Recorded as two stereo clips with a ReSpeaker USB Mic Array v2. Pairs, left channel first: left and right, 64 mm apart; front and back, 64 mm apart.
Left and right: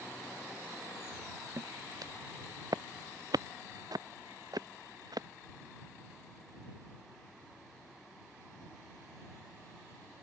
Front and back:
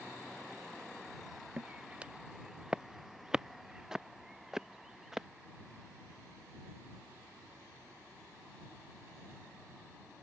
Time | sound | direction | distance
1.6 | footsteps | 115° right | ?